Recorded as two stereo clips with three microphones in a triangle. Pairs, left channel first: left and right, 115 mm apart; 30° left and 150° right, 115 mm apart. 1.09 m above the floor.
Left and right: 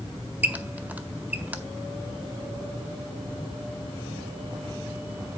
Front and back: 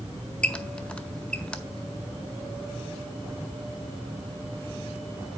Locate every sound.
0.4 s a squeak: 35° right, 0.6 m